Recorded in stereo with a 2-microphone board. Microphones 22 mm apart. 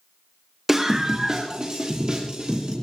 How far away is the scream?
About 0.9 m.